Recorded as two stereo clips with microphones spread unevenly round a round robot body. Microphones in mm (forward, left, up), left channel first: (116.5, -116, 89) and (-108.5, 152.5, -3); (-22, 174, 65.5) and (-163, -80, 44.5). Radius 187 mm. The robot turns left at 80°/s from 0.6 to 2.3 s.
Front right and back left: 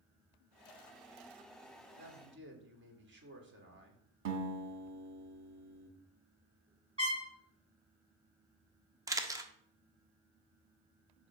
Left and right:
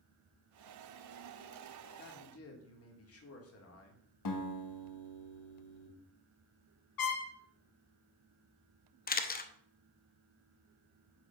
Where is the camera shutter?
95° left, 0.9 m.